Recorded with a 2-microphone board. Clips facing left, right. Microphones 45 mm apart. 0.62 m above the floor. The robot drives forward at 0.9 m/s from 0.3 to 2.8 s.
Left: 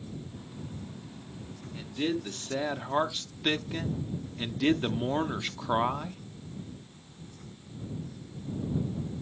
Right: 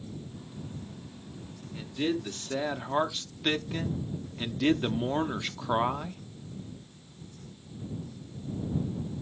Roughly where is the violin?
I don't hear a violin.